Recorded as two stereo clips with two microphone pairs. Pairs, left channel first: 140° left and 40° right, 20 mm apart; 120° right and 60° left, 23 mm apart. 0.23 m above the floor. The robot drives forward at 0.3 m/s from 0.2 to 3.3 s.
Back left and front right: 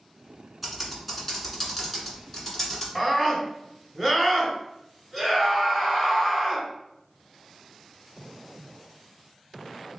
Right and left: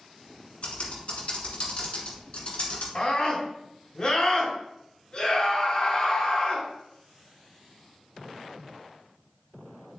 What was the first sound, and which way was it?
Typing on a keyboard, 125° right.